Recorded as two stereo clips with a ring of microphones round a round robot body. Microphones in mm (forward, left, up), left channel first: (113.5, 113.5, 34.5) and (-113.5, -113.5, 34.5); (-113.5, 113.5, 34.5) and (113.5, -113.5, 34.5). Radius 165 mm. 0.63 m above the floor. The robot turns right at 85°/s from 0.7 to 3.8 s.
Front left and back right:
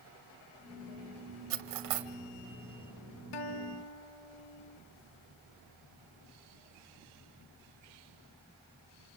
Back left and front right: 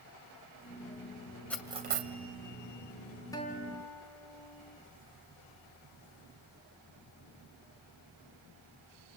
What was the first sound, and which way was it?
Cutlery clinking, 140° right.